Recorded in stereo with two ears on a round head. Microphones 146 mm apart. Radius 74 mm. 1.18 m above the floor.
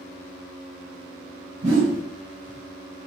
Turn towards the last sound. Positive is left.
turn(degrees=-45)  # may be behind; listen again after turning